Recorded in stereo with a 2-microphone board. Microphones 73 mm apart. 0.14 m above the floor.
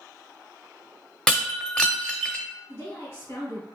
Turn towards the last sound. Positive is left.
turn(degrees=35)  # may be behind; listen again after turning